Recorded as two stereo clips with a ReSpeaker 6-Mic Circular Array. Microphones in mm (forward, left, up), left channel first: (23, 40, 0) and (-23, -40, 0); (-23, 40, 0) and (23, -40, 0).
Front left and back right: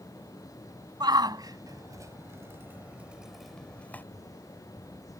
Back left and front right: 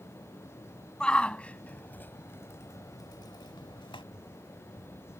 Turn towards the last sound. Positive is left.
turn(degrees=125)